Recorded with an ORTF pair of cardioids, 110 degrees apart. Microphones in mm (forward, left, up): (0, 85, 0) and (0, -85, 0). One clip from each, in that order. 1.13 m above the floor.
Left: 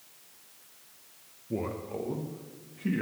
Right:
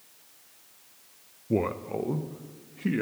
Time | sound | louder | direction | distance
1.5 | a man speaking | right 6 dB | 40° right | 0.5 m